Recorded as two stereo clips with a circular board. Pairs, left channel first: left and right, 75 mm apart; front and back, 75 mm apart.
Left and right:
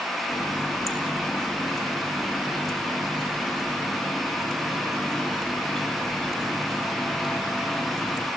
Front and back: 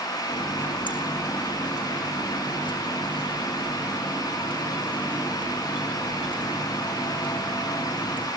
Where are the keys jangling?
I don't hear keys jangling.